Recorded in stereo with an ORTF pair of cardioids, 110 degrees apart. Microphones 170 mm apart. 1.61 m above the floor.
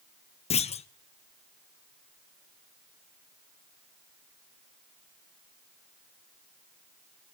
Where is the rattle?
No rattle in this recording.